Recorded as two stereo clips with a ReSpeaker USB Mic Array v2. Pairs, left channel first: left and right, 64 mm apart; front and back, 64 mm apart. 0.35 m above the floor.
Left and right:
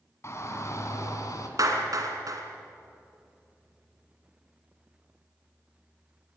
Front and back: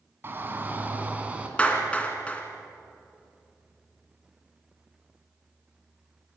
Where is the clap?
70° right, 2.5 m.